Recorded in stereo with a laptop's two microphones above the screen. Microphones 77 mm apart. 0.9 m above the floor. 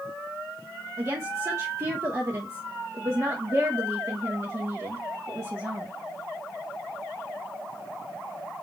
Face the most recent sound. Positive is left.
turn(degrees=-40)  # may be behind; listen again after turning